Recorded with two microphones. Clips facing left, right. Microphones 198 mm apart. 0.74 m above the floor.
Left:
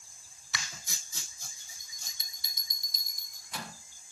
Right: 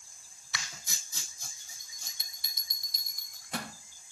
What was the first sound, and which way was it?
A bell, 60° right (ahead or behind).